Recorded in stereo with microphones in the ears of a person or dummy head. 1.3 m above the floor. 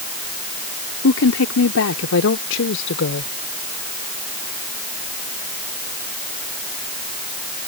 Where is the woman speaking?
75° left (ahead or behind); by 3.3 s 65° left (ahead or behind).